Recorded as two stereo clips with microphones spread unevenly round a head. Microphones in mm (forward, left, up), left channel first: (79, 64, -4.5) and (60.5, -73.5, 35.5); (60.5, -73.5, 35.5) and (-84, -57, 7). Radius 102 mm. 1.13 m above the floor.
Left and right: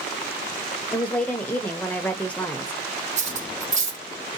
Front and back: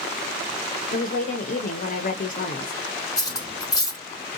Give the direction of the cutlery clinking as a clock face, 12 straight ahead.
2 o'clock.